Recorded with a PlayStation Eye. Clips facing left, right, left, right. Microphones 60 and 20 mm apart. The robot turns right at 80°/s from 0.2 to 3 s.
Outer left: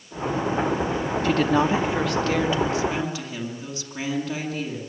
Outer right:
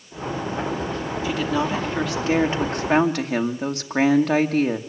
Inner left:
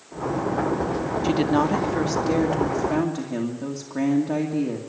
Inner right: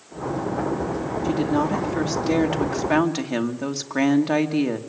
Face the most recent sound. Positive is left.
turn(degrees=-105)